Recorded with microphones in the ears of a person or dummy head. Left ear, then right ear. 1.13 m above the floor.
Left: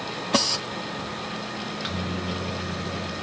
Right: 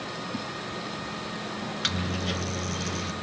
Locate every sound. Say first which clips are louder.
1.6 s a microwave: right 5 dB; 25° right (ahead or behind), 0.7 m